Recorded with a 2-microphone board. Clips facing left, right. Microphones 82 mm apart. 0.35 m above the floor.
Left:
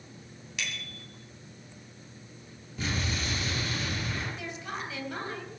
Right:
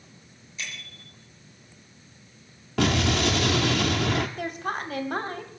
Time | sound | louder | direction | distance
0.6 | a bicycle bell | left 1 dB | 80° left | 4.5 m
2.8 | an explosion | right 11 dB | 85° right | 1.4 m
4.4 | a woman speaking | right 7 dB | 50° right (ahead or behind) | 2 m